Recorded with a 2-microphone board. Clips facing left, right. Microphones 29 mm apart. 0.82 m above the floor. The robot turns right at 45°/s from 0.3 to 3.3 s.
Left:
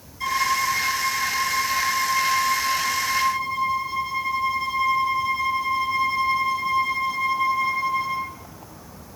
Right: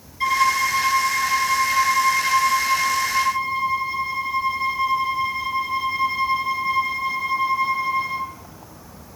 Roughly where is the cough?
I don't hear a cough.